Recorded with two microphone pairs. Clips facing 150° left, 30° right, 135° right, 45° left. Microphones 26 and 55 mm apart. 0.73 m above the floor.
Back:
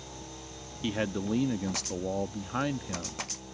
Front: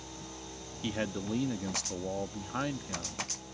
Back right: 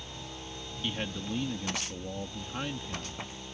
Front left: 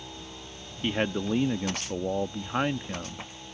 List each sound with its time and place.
0.8 s a man speaking: 70° left